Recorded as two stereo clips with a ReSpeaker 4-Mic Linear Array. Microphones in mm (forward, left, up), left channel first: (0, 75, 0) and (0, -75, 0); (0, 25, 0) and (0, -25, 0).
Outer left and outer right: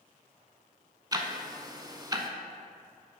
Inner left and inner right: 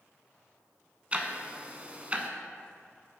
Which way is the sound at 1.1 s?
25° right (ahead or behind).